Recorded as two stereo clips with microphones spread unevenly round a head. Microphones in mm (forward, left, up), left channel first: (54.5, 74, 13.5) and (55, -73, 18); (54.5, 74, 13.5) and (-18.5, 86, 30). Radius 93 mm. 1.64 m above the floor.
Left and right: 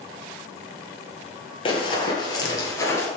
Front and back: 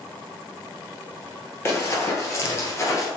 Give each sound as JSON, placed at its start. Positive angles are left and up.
{"t": 1.6, "sound": "running footsteps", "azimuth_deg": 45, "distance_m": 2.0}